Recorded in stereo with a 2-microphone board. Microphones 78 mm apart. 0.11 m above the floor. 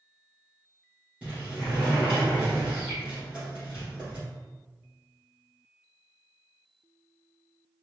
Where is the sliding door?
15° right (ahead or behind), 2.0 m.